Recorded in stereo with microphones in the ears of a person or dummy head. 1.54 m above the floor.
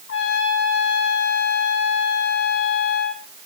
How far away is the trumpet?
About 3 m.